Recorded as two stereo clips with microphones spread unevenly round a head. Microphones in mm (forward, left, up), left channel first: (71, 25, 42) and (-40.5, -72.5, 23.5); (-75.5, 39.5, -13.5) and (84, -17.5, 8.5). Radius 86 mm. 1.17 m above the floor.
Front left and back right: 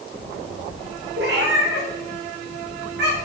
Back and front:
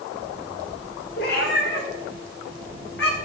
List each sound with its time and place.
1.2 s a cat meowing: 165° right, 2 m; by 3.1 s 170° right, 3.5 m